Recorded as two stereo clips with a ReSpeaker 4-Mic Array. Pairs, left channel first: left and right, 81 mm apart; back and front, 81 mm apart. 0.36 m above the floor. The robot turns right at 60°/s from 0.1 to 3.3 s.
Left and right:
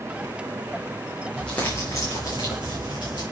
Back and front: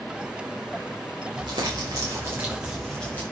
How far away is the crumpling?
About 6 m.